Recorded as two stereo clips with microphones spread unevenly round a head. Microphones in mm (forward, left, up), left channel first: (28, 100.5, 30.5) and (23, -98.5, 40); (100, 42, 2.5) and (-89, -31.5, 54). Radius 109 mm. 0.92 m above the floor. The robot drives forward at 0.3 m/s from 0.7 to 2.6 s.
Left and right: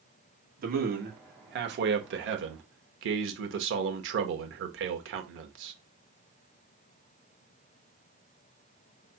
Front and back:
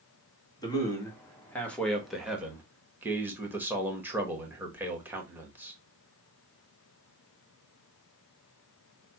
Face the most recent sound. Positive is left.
turn(degrees=-70)